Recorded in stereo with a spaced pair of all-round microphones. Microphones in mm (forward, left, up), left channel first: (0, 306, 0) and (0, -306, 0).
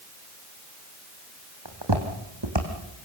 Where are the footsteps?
40° right (ahead or behind), 3 m; by 2.7 s 45° right (ahead or behind), 3.5 m.